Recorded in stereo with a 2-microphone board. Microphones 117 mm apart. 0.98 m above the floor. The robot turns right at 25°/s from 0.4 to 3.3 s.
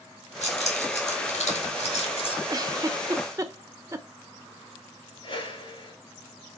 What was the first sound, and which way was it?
Keys jangling, 75° left (ahead or behind).